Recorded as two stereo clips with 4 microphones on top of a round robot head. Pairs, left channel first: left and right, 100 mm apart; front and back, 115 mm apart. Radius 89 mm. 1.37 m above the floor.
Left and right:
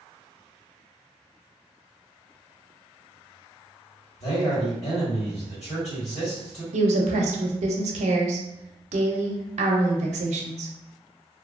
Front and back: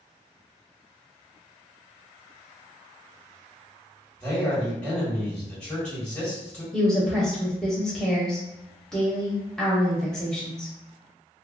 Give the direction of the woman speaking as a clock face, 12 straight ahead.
3 o'clock.